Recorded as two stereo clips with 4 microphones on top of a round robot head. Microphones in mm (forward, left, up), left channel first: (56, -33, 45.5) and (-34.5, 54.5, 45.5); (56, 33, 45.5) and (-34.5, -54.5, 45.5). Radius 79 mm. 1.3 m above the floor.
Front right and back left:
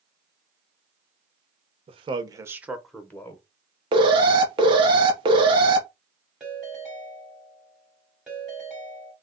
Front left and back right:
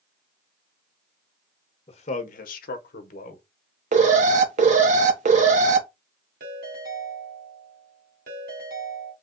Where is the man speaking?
90° left, 0.8 m; by 3.4 s 25° left, 1.0 m.